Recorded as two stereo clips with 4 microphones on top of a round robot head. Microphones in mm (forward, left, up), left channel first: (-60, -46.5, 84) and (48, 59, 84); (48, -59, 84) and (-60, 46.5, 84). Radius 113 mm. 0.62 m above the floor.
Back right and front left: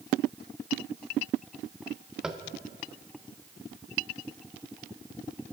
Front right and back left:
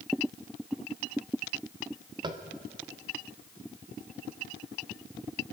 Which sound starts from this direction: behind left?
Tapping, at 2.2 s.